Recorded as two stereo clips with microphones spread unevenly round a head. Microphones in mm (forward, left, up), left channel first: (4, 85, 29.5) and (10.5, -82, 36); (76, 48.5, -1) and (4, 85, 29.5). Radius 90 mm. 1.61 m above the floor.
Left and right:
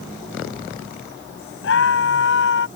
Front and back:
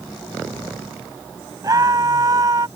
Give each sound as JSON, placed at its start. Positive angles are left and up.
{"t": 1.6, "sound": "a scream", "azimuth_deg": 115}